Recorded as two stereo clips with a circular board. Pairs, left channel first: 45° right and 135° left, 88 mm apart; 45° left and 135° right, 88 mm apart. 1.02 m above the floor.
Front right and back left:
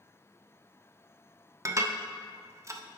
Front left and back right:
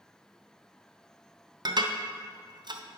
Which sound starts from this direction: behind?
Dishes clattering, at 1.6 s.